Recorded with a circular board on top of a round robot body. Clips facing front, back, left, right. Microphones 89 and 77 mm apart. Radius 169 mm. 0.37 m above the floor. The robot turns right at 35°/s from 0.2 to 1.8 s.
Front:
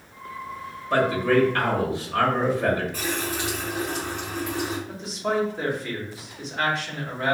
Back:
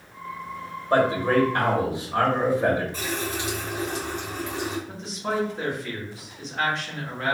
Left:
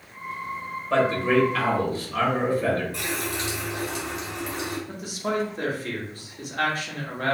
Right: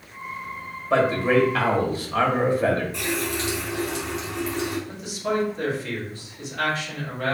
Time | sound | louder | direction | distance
0.9 | a man speaking | even, right 1 dB | 165° right | 1.3 m
2.9 | a running tap | front 1 dB, right 3 dB | 115° left | 1.6 m
4.9 | a man speaking | front 2 dB, right 2 dB | 85° left | 1.4 m